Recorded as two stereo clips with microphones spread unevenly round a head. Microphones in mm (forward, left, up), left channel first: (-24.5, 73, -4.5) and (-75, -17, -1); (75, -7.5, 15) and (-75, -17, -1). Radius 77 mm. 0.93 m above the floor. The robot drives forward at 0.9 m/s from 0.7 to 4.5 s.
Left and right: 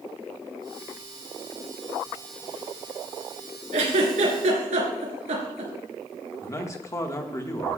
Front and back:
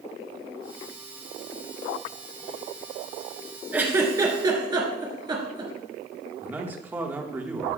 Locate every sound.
3.7 s a giggle: 95° right, 2.5 m; by 5.7 s 110° right, 2.5 m
6.4 s a man speaking: 110° left, 1.3 m